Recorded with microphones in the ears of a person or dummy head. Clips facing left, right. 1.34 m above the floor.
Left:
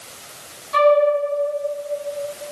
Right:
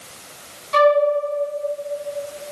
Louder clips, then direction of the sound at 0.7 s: Left 1 dB; 45° right (ahead or behind).